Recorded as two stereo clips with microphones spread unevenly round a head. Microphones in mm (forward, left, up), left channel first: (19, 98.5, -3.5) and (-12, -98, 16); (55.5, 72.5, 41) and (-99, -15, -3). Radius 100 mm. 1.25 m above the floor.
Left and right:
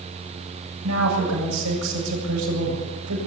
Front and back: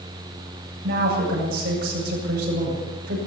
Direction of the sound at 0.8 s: 105° right.